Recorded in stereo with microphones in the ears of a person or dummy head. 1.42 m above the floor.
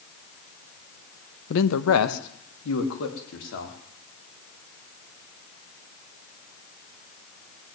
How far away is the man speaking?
About 0.9 m.